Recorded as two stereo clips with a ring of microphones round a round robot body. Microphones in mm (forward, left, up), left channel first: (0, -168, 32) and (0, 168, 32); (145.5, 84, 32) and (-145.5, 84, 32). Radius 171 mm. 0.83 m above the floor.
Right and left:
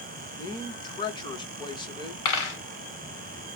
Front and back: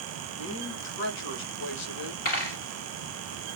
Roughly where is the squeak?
No squeak in this recording.